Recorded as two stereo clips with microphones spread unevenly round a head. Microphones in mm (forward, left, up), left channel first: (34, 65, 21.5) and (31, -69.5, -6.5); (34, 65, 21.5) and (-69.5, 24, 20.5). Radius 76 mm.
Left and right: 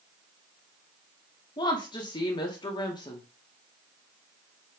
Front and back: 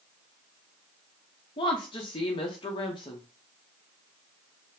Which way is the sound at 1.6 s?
50° left.